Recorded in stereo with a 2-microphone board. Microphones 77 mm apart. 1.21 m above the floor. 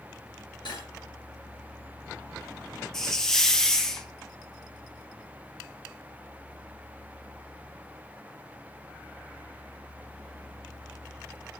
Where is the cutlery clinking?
85° left, 8 m.